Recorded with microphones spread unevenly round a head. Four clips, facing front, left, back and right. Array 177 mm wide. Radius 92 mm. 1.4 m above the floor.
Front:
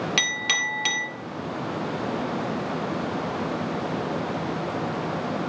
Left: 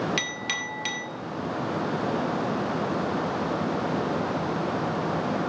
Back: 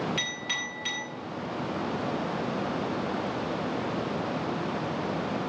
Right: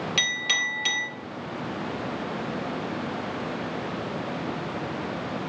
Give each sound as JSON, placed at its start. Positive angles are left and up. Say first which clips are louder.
{"t": 0.2, "sound": "a clink", "louder": "right 2 dB, front 6 dB", "azimuth_deg": 0, "distance_m": 2.0}